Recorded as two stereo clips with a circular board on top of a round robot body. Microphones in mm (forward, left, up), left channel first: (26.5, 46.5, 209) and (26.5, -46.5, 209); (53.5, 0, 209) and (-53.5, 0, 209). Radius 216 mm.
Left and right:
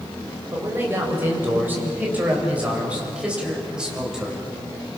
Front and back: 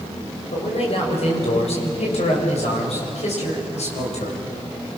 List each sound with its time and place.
0.5 s a man speaking: 25° right, 7 m; by 4.4 s 5° right, 7 m